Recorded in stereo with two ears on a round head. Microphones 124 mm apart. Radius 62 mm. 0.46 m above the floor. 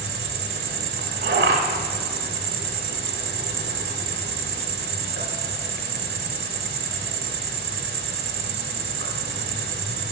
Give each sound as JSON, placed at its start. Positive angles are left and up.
{"t": 0.0, "sound": "an insect", "side_deg": -80, "distance_m": 0.7}